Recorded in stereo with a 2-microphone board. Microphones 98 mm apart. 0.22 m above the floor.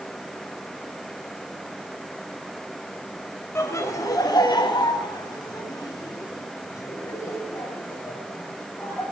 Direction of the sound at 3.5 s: 25° left (ahead or behind).